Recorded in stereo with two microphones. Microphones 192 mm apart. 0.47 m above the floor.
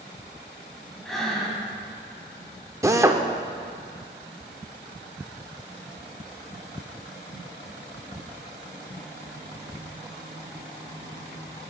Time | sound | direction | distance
1.1 | breathing | centre (ahead or behind) | 2 m
2.8 | a drill | 15° right (ahead or behind) | 0.5 m